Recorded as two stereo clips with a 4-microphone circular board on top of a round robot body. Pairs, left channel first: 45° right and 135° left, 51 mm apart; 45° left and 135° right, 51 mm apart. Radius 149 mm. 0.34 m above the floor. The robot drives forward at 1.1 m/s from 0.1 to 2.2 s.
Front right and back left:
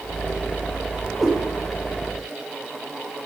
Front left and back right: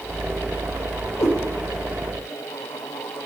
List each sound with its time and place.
1.2 s a cat meowing: 45° left, 6.5 m